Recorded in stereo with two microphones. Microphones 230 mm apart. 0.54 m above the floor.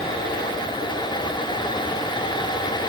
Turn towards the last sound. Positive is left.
No sound to turn to.